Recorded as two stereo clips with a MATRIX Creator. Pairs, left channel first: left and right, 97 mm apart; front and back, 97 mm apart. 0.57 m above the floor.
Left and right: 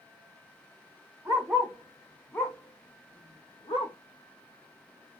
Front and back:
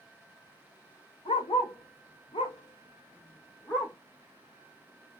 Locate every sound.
1.2 s a dog barking: 20° right, 0.9 m; by 4.0 s 75° left, 1.0 m